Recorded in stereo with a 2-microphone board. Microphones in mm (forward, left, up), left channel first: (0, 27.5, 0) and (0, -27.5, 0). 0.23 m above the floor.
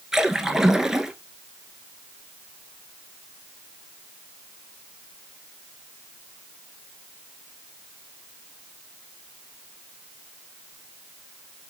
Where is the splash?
5° right (ahead or behind), 0.8 m.